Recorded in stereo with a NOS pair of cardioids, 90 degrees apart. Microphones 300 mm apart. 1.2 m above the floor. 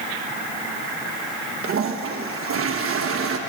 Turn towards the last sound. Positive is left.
turn(degrees=-50)